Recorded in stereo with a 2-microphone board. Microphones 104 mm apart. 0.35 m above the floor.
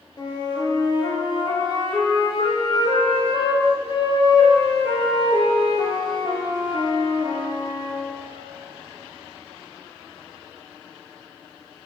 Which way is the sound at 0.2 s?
45° left (ahead or behind).